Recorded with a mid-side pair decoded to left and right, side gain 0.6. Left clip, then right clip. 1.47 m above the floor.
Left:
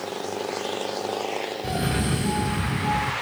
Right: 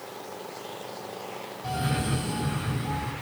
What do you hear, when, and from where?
1.6 s a cough: 40° left, 1.5 m